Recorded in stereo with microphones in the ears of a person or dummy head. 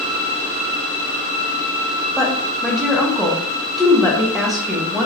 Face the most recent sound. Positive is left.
turn(degrees=0)  # may be behind; listen again after turning